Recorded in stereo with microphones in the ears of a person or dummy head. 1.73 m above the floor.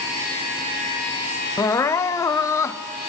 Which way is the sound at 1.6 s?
15° left (ahead or behind).